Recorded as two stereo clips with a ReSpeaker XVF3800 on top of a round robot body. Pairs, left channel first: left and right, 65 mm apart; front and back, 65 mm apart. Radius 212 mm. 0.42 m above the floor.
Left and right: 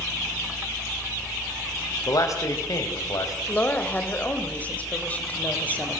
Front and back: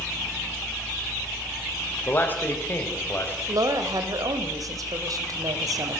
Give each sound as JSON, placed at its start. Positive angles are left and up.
{"t": 2.1, "sound": "a man speaking", "azimuth_deg": 60, "distance_m": 4.0}
{"t": 3.5, "sound": "a woman speaking", "azimuth_deg": 155, "distance_m": 3.5}